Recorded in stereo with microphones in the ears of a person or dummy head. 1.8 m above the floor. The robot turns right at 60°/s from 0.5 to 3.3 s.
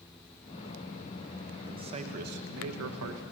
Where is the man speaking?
165° right, 2.5 m; by 3.2 s 70° right, 2.5 m.